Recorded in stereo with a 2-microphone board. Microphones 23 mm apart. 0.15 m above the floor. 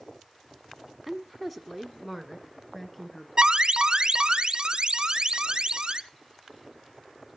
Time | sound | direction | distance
1.1 | a woman speaking | 5° left (ahead or behind) | 1.1 m
3.4 | an alarm | 45° right (ahead or behind) | 1.0 m